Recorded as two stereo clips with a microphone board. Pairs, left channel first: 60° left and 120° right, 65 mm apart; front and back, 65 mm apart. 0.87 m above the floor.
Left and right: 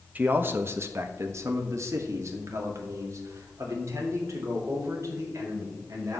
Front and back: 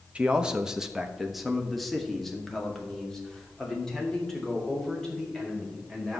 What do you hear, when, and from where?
0.1 s a man speaking: 135° right, 0.8 m; by 6.2 s 80° right, 4.5 m